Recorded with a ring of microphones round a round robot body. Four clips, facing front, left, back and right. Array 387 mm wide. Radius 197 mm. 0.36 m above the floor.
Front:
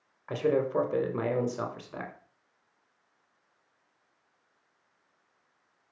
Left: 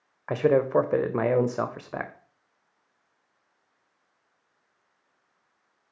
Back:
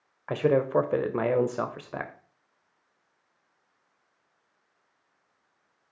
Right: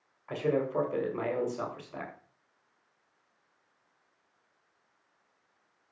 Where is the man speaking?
120° left, 1.5 m.